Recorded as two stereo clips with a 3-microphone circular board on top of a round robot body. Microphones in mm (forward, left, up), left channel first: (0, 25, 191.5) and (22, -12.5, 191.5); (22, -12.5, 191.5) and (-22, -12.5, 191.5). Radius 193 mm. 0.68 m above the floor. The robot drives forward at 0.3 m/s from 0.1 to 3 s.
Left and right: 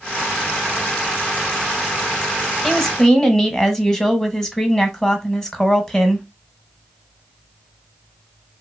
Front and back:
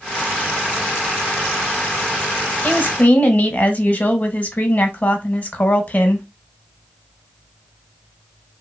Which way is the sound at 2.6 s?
40° left.